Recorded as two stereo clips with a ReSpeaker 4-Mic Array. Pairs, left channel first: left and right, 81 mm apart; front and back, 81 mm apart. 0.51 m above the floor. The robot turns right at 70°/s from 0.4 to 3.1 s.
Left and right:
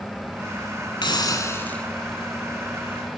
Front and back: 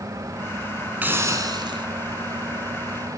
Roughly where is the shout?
No shout in this recording.